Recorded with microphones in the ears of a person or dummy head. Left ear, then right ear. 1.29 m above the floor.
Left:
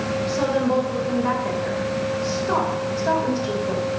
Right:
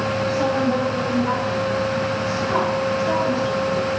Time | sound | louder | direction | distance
0.3 | a woman speaking | left 1 dB | 70° left (ahead or behind) | 6 m